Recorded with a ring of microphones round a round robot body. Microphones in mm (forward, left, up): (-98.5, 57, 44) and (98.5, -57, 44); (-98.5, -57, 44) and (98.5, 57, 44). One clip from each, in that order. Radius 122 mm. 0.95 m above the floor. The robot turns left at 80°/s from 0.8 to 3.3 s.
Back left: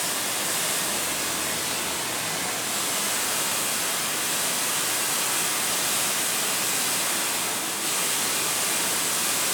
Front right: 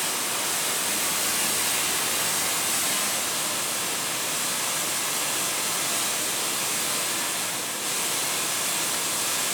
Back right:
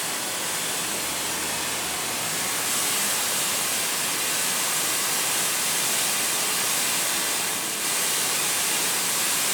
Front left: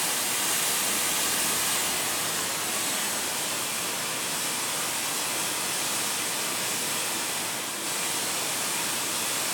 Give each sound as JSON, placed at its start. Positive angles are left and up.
{"t": 0.0, "sound": "running water", "azimuth_deg": 55, "distance_m": 2.0}